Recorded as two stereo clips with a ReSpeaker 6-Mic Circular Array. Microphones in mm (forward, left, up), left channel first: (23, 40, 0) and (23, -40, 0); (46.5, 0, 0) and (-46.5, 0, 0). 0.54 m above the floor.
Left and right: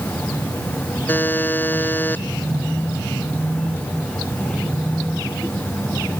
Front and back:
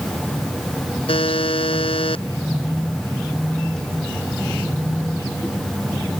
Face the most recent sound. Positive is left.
turn(degrees=20)